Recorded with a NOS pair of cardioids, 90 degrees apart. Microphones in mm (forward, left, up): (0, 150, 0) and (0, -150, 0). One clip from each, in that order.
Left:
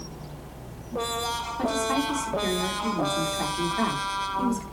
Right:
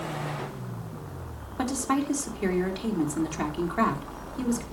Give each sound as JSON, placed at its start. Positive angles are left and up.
{"t": 1.6, "sound": "a woman speaking", "azimuth_deg": -35, "distance_m": 4.0}